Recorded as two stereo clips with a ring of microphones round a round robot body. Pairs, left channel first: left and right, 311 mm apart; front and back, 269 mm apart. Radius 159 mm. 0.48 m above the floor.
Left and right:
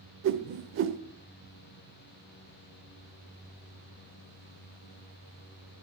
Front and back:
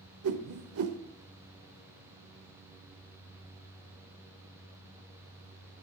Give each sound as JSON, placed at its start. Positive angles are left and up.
{"t": 0.2, "sound": "a whoosh", "azimuth_deg": -140, "distance_m": 0.8}